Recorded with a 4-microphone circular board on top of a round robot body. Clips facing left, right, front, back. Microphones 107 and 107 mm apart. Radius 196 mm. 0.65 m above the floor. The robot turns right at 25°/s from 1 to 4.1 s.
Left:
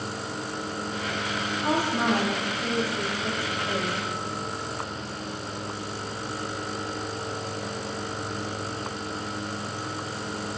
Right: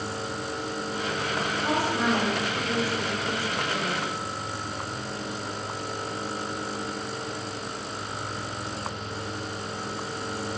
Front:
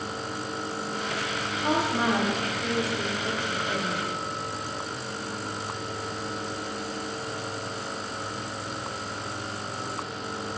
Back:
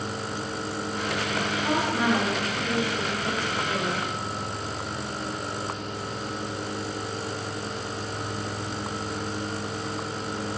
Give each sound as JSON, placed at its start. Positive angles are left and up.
{"t": 1.6, "sound": "a woman speaking", "azimuth_deg": 50, "distance_m": 1.7}